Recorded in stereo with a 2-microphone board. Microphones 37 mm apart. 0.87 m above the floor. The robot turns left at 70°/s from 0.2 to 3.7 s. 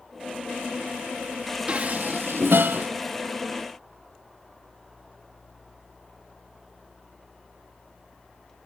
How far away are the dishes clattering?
About 0.6 m.